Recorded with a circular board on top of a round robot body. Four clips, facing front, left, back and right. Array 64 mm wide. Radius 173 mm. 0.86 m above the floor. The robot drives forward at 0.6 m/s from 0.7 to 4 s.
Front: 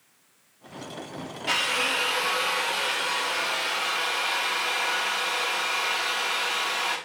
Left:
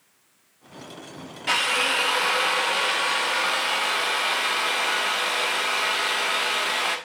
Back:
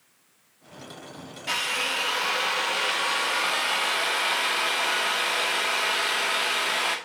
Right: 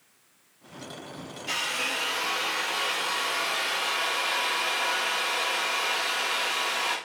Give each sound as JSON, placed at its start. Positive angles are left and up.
{"t": 1.5, "sound": "a drill", "azimuth_deg": 80, "distance_m": 1.5}